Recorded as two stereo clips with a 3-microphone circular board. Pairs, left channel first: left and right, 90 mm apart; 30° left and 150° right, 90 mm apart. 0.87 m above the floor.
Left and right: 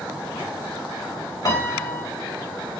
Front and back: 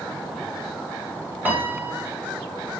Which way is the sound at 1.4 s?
140° left.